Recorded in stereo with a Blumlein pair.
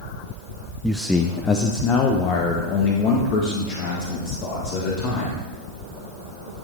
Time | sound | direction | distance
0.8 | a man speaking | 5° right | 0.6 m